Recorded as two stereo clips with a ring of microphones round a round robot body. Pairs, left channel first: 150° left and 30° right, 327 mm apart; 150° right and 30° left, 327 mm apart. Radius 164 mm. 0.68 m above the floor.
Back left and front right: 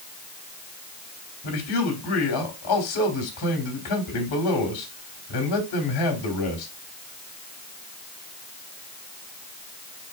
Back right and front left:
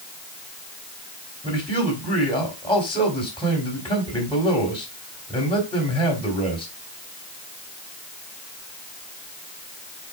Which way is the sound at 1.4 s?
125° left.